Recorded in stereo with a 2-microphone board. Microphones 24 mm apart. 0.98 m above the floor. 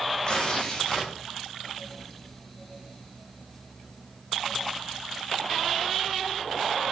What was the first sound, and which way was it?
Tearing paper, 35° left (ahead or behind).